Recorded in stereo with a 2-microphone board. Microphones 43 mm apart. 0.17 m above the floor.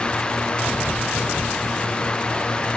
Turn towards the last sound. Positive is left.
No sound to turn to.